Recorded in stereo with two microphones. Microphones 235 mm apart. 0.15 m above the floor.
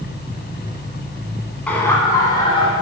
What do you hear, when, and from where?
1.7 s laughter: 5° left (ahead or behind), 1.3 m; by 2.7 s 25° left (ahead or behind), 1.3 m